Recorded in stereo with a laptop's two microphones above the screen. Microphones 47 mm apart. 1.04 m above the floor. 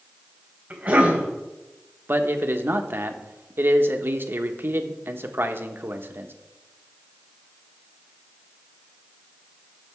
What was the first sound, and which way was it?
A cough, 30° right (ahead or behind).